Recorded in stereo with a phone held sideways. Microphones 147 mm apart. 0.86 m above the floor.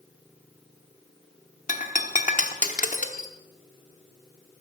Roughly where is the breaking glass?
Left.